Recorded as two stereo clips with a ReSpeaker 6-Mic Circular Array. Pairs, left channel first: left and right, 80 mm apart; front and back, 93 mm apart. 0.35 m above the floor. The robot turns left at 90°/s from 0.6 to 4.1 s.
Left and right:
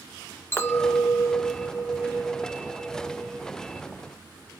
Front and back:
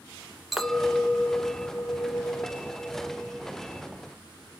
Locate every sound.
0.5 s a clink: 90° left, 0.6 m; by 3.5 s 170° right, 0.6 m